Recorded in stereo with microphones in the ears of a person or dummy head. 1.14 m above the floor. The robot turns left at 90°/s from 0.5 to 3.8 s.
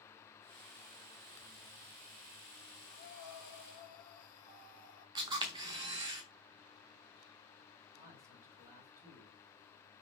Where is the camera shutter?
25° right (ahead or behind), 0.9 m.